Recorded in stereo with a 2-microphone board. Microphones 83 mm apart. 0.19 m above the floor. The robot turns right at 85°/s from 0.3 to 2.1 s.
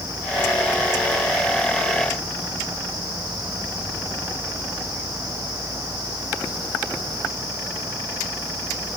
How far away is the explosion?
I don't hear an explosion.